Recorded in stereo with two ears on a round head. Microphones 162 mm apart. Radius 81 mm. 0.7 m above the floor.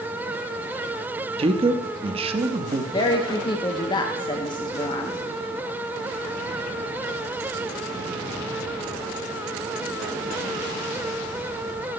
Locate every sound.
1.4 s a man speaking: 30° right (ahead or behind), 0.6 m
2.9 s a woman speaking: 25° left (ahead or behind), 0.7 m